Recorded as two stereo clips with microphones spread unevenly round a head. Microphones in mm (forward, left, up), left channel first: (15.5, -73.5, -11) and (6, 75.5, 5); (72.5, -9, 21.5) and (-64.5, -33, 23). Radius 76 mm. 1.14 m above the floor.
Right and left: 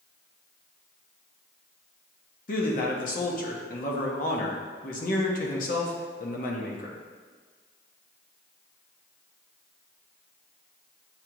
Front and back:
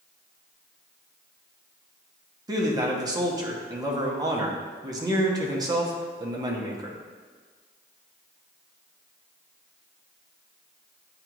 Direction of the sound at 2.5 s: 110° right.